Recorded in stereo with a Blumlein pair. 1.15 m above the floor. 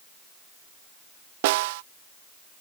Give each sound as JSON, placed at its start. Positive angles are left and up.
{"t": 1.4, "sound": "a snare drum", "azimuth_deg": -50}